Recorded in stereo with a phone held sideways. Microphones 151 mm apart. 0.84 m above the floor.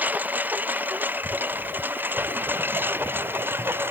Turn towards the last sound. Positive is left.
turn(degrees=-15)  # may be behind; listen again after turning